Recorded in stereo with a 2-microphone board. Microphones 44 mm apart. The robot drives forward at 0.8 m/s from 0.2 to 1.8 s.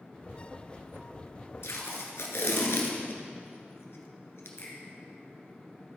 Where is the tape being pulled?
75° left (ahead or behind), 1.4 m; by 4.5 s 70° left (ahead or behind), 1.5 m.